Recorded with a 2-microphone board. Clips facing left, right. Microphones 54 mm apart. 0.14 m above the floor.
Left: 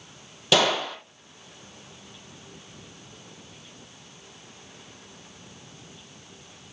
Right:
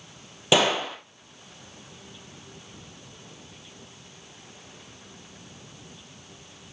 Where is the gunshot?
20° right (ahead or behind), 2.5 m.